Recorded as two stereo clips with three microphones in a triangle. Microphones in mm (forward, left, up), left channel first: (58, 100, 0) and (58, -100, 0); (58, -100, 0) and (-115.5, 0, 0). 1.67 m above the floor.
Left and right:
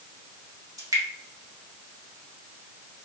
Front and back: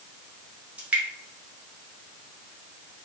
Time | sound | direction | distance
0.8 | dripping | 135° right | 1.2 m